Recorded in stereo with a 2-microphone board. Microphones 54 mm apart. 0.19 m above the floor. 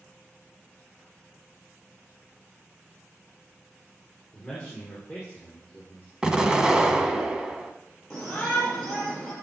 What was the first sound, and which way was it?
A man speaking, 10° left (ahead or behind).